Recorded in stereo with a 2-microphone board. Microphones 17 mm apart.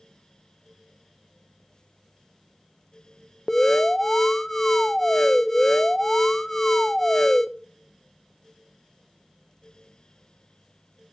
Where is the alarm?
20° left (ahead or behind), 0.7 m.